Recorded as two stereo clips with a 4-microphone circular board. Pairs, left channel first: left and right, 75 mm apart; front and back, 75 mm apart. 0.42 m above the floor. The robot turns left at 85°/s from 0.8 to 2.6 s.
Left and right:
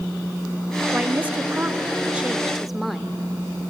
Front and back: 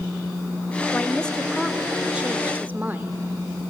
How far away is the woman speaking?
About 0.9 m.